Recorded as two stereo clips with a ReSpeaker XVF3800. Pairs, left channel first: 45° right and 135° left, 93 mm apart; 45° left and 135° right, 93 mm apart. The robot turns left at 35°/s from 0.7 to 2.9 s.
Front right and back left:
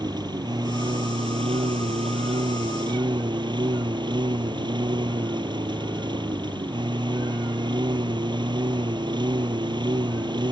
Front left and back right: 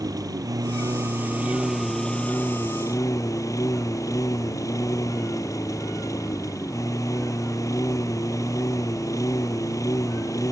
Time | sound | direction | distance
0.0 | a lawn mower | 175° left | ?